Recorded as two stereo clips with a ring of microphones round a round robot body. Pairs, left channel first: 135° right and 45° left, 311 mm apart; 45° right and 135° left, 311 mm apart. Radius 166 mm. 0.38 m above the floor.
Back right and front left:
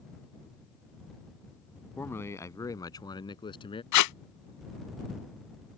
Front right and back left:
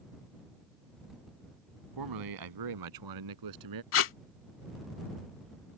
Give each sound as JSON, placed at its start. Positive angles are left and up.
{"t": 2.0, "sound": "a man speaking", "azimuth_deg": 140}
{"t": 3.9, "sound": "tape being pulled", "azimuth_deg": -95}